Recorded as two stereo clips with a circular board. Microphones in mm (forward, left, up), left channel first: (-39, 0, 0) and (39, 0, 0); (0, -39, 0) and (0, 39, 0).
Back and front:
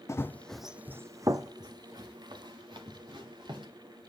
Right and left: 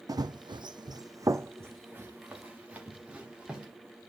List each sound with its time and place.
0.1 s running footsteps: 125° left, 0.6 m; by 3.7 s 15° left, 2.5 m